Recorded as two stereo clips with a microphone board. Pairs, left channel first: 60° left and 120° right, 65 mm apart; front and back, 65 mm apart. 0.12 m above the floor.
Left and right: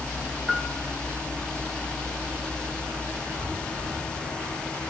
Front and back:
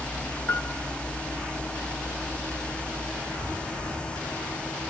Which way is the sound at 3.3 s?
55° left.